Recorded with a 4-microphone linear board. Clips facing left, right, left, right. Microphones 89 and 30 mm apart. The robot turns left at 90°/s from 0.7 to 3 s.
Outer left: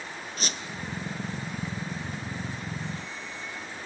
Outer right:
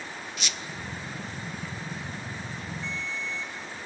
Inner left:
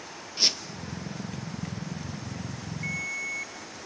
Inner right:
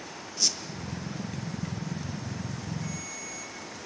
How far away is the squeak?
About 0.9 m.